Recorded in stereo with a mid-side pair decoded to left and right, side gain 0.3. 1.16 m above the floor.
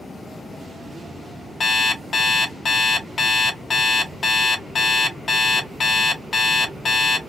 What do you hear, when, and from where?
1.6 s an alarm clock: 60° left, 0.8 m